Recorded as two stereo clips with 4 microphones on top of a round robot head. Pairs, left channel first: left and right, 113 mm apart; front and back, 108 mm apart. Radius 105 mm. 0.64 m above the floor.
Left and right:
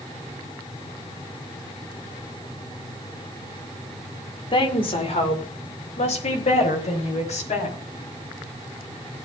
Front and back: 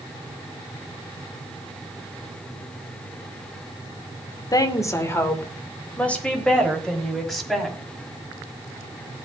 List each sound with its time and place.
4.5 s a woman speaking: 45° left, 2.5 m; by 7.8 s 85° left, 6 m